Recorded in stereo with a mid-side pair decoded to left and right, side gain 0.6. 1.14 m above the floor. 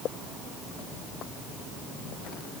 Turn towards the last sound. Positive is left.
No sound to turn to.